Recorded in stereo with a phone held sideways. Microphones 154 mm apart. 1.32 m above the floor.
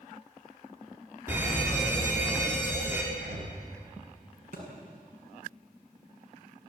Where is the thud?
65° right (ahead or behind), 7 m.